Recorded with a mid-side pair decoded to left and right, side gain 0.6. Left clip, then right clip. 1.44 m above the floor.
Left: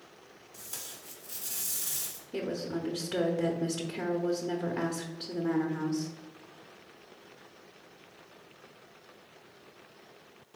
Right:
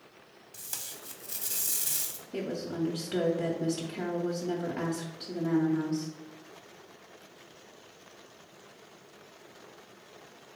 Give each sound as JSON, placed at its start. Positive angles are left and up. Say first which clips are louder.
{"t": 0.5, "sound": "tape being pulled", "louder": "right 3 dB", "azimuth_deg": -45, "distance_m": 1.0}
{"t": 2.3, "sound": "a woman speaking", "louder": "even", "azimuth_deg": 0, "distance_m": 0.7}